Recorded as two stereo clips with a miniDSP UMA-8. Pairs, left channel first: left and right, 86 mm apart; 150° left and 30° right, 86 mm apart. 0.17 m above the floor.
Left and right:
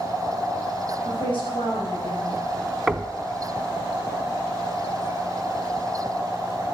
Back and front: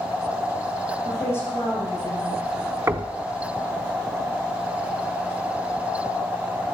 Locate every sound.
1.1 s a woman speaking: 90° left, 9 m
2.9 s knocking: 10° right, 0.8 m